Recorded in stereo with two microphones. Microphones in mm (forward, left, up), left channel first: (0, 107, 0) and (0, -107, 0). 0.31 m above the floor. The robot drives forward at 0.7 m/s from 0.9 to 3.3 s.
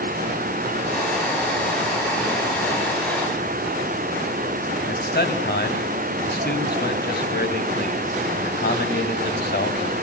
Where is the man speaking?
50° left (ahead or behind), 1.9 m.